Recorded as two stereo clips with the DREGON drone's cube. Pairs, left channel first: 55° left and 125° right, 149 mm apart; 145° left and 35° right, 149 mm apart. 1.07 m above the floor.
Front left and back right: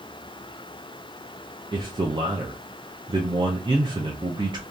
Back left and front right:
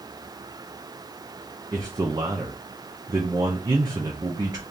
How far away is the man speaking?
About 0.5 m.